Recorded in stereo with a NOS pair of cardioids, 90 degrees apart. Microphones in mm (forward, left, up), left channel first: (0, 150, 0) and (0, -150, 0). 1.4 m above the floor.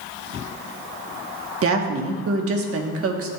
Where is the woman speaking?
50° right, 1.3 m.